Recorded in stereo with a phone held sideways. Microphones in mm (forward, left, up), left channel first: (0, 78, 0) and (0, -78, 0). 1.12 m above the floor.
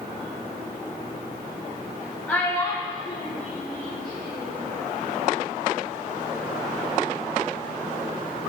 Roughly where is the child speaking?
Centre.